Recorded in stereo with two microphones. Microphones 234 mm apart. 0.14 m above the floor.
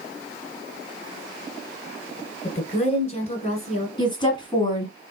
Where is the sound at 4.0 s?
20° left (ahead or behind), 1.7 m.